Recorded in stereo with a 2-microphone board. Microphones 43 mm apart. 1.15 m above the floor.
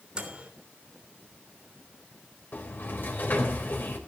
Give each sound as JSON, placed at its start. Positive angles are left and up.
{"t": 0.1, "sound": "a microwave", "side_deg": -20, "distance_m": 3.0}
{"t": 2.5, "sound": "a sliding door", "side_deg": 50, "distance_m": 3.5}